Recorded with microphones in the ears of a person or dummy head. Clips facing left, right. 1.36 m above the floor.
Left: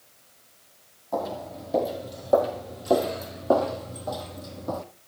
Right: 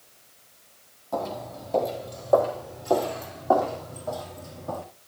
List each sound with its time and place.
1.1 s footsteps: 5° left (ahead or behind), 3 m; by 4.8 s 55° left (ahead or behind), 3 m